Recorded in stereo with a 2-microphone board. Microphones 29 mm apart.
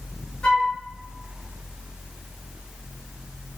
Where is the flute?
45° left (ahead or behind), 2 m.